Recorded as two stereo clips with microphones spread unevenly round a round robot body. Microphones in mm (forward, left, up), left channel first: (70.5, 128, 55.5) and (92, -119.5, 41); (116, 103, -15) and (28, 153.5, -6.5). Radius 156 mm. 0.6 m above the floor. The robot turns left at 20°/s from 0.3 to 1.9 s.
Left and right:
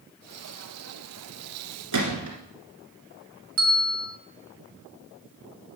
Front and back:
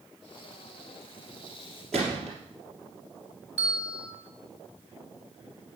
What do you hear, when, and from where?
1.9 s a gunshot: 120° right, 2 m
3.6 s a bell: 125° right, 1.5 m